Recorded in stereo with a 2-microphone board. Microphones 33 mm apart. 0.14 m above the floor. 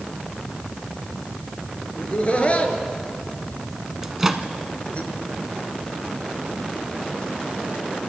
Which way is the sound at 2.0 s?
35° left (ahead or behind).